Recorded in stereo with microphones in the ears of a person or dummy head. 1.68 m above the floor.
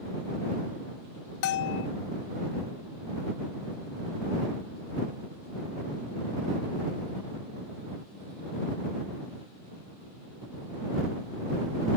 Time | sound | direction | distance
1.4 | a bell | 65° left (ahead or behind) | ?